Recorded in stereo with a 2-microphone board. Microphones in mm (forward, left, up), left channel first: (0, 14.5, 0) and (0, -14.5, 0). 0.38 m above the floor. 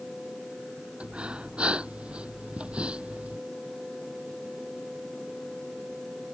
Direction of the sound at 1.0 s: 40° right (ahead or behind).